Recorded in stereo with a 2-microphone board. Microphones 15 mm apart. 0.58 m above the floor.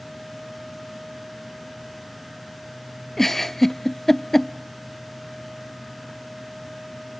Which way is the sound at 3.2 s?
20° left (ahead or behind).